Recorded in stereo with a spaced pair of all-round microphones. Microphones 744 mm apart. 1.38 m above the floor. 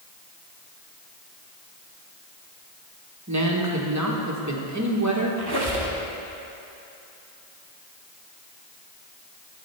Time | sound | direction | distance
3.3 | a woman speaking | 25° right (ahead or behind) | 1.2 m
5.4 | a squeak | 30° right (ahead or behind) | 1.3 m